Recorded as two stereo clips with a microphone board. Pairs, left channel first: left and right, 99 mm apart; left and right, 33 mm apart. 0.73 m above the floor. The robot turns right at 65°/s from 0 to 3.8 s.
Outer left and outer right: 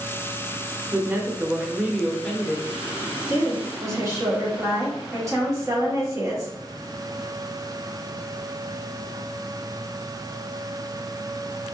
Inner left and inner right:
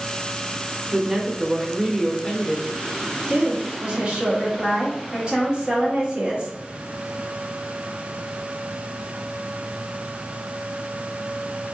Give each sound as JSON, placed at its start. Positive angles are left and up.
{"t": 0.9, "sound": "a woman speaking", "side_deg": -20, "distance_m": 0.6}
{"t": 3.3, "sound": "a woman speaking", "azimuth_deg": -65, "distance_m": 1.3}